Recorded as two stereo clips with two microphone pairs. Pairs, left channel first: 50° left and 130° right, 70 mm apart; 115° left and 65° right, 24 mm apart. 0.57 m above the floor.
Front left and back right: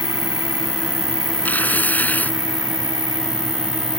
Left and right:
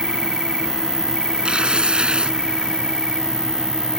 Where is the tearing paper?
15° right.